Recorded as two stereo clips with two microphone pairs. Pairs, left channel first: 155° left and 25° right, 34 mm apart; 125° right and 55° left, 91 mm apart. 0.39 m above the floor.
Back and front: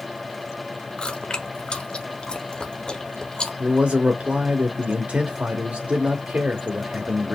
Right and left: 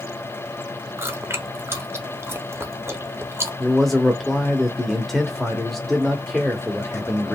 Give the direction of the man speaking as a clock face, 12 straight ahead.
1 o'clock.